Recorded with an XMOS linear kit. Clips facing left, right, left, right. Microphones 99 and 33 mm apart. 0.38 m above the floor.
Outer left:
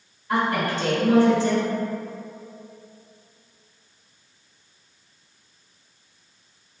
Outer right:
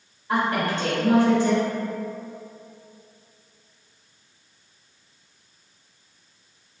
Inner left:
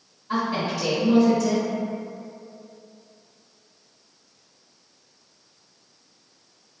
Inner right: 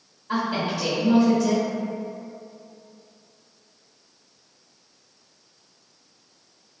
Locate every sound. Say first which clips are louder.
0.3 s a woman speaking: even, even; 30° right (ahead or behind), 1.6 m